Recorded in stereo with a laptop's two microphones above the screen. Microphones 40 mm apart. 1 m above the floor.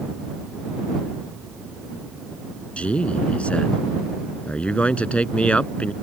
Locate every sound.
2.8 s a man speaking: 35° left (ahead or behind)